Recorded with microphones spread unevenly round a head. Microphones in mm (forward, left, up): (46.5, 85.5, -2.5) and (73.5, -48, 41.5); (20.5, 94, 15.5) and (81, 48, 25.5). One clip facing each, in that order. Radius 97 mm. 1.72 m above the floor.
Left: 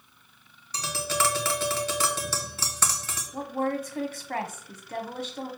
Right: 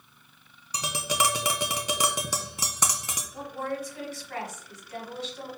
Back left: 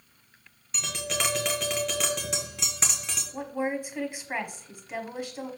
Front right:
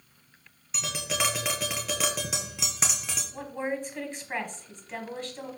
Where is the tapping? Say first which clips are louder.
Even, front right 1 dB; 110° right, 0.7 m.